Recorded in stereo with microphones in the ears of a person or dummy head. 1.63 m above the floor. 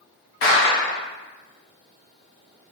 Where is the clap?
40° left (ahead or behind), 0.8 m.